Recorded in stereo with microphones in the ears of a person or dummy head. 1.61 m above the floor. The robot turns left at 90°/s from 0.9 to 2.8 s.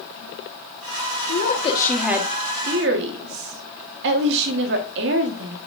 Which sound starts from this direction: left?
A woman speaking, at 1.3 s.